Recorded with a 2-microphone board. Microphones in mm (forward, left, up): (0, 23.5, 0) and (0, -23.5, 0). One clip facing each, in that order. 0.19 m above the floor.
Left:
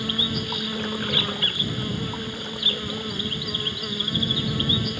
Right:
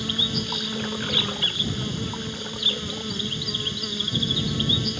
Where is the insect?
10° left (ahead or behind).